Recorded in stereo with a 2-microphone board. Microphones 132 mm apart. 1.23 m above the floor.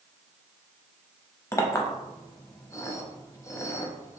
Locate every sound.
1.5 s a clink: 20° left (ahead or behind), 0.6 m